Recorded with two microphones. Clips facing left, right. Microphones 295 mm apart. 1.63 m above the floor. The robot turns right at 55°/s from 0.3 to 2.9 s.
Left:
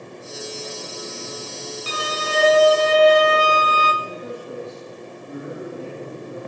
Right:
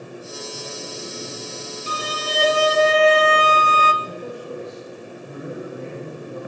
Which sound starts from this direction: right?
A man speaking, at 4.0 s.